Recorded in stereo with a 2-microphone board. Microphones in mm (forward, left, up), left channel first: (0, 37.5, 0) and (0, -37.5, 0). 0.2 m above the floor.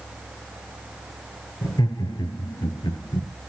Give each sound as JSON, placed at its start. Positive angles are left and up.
{"t": 1.6, "sound": "laughter", "side_deg": 70, "distance_m": 3.5}